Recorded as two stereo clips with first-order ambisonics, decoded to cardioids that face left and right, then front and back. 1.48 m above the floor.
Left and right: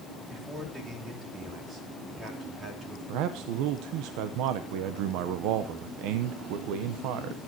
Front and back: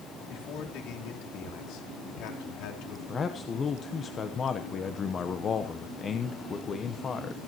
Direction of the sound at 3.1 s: 65° right.